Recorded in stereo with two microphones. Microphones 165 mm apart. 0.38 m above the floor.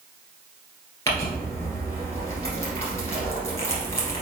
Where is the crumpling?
15° left (ahead or behind), 1.9 m.